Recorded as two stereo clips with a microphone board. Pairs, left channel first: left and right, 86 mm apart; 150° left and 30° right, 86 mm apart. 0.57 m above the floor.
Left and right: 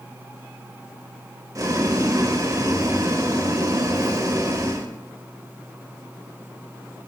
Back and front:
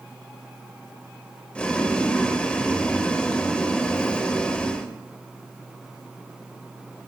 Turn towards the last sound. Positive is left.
turn(degrees=-135)